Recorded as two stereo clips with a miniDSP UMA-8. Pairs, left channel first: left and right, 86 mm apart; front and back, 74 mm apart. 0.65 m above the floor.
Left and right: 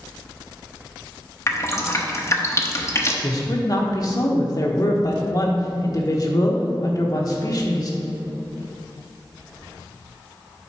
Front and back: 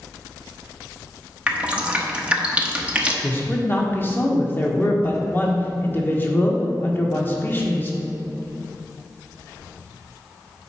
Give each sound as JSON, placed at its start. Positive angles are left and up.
{"t": 1.5, "sound": "dripping", "azimuth_deg": 115, "distance_m": 0.8}
{"t": 3.2, "sound": "a man speaking", "azimuth_deg": 55, "distance_m": 1.3}